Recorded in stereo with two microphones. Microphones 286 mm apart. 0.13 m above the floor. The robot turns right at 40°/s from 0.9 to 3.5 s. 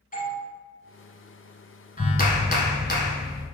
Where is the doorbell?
30° left (ahead or behind), 1.9 m.